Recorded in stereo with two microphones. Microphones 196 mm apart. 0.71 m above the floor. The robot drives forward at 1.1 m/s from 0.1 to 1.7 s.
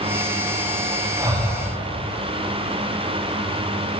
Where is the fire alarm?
No fire alarm in this recording.